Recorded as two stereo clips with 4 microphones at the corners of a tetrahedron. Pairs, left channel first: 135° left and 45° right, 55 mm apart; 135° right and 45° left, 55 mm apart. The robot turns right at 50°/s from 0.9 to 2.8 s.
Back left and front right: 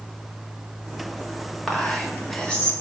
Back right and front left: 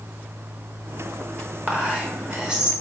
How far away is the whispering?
About 1.0 m.